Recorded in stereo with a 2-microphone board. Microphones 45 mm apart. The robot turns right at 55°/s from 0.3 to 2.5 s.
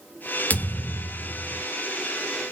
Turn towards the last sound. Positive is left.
turn(degrees=150)